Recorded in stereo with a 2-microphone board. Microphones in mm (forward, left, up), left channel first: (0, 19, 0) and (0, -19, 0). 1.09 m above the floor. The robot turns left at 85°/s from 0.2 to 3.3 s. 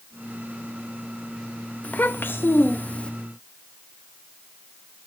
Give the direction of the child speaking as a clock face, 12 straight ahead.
7 o'clock.